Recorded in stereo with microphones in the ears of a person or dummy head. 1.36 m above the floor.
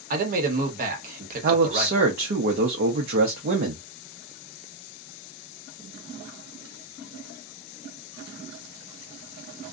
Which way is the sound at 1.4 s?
45° right (ahead or behind).